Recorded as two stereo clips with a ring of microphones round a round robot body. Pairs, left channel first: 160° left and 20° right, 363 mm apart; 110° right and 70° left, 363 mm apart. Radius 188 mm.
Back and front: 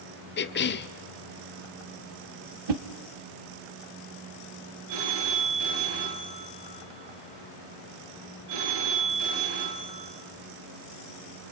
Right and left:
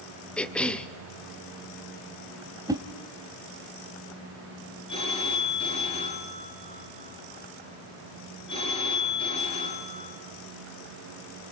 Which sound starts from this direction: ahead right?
A phone ringing, at 4.9 s.